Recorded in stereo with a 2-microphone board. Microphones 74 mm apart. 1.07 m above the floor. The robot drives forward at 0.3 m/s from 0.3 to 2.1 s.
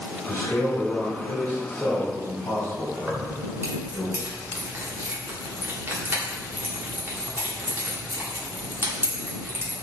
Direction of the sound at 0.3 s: 40° left (ahead or behind).